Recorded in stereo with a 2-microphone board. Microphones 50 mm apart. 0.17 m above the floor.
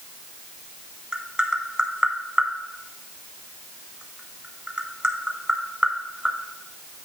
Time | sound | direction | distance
1.1 | tapping | 20° right (ahead or behind) | 0.7 m